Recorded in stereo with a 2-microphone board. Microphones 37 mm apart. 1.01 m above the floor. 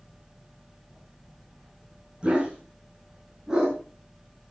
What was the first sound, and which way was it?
A dog barking, 25° right (ahead or behind).